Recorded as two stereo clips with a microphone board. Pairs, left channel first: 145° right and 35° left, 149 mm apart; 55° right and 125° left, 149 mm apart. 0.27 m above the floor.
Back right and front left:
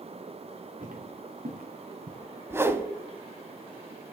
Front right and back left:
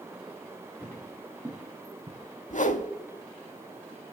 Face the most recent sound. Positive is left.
turn(degrees=-35)